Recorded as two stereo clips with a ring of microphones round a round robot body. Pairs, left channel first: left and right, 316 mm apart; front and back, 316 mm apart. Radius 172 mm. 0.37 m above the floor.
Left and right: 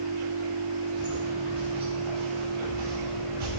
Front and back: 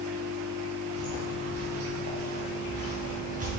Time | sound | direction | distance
0.9 | footsteps | 150° right | 3 m